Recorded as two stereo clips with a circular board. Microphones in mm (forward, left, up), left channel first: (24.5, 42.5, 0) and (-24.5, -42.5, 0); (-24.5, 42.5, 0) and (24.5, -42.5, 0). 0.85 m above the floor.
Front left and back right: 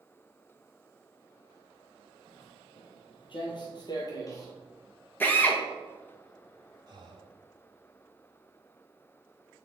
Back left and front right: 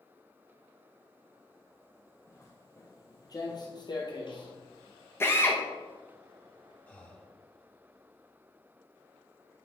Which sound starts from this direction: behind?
Breathing, at 6.9 s.